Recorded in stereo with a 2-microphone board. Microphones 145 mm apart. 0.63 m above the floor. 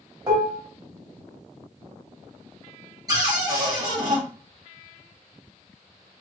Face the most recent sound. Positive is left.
turn(degrees=-25)  # may be behind; listen again after turning